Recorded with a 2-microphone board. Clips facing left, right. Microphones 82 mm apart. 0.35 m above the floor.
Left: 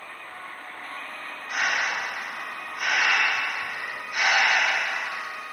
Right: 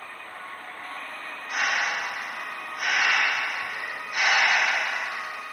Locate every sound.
1.5 s breathing: 45° right (ahead or behind), 1.9 m